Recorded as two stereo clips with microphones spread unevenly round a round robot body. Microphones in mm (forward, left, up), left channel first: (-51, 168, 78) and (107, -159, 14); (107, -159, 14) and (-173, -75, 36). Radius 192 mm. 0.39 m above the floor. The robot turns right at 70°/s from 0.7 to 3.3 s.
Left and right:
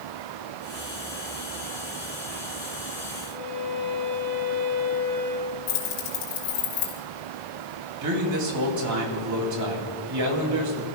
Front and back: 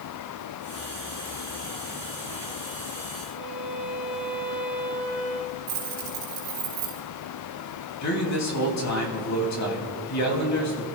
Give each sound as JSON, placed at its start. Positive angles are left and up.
{"t": 3.3, "sound": "a violin", "azimuth_deg": 0, "distance_m": 7.0}
{"t": 5.7, "sound": "keys jangling", "azimuth_deg": 105, "distance_m": 4.5}
{"t": 8.0, "sound": "a man speaking", "azimuth_deg": -35, "distance_m": 3.0}